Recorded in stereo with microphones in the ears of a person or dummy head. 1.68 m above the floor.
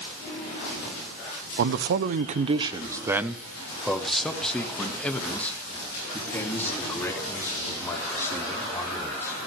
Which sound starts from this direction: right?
A man speaking, at 1.6 s.